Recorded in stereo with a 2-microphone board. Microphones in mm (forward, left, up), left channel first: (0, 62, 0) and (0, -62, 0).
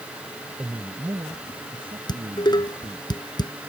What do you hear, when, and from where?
0.6 s a man speaking: 30° right (ahead or behind); by 3.1 s 50° right (ahead or behind)
2.1 s dishes clattering: 35° left (ahead or behind)